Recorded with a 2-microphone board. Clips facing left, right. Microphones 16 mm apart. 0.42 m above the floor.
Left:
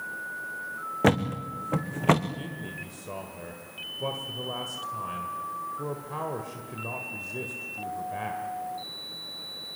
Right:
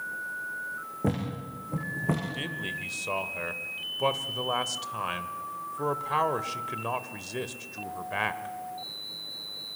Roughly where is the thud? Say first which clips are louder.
Left 8 dB; left.